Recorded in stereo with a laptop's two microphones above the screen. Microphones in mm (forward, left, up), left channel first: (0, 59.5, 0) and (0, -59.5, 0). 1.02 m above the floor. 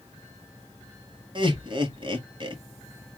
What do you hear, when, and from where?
1.4 s laughter: 40° right (ahead or behind), 1.2 m